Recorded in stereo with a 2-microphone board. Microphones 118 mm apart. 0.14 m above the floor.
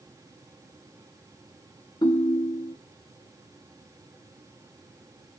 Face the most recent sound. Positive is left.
turn(degrees=35)  # may be behind; listen again after turning